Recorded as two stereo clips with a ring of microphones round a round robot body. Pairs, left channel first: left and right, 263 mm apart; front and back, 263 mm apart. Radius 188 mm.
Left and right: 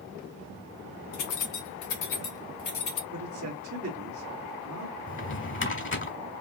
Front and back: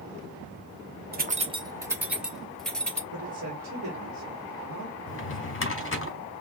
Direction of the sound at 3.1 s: 130° right.